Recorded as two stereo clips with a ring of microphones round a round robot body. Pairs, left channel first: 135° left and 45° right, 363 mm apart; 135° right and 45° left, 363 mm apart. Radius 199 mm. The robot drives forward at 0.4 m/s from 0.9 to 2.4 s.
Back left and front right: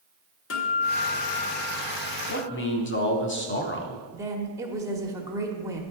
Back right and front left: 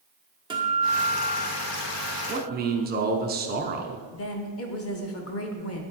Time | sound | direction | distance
0.5 | a guitar | 115° left | 1.3 m
2.3 | a man speaking | 90° left | 0.9 m
4.1 | a woman speaking | 120° right | 1.0 m